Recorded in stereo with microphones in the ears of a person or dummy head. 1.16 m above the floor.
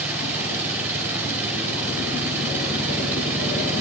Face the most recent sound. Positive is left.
turn(degrees=-15)  # may be behind; listen again after turning